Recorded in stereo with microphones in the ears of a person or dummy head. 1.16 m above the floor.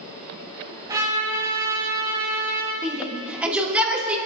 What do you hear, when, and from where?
0.9 s a trumpet: 15° right (ahead or behind), 3.5 m
2.8 s a shout: 5° right (ahead or behind), 2.5 m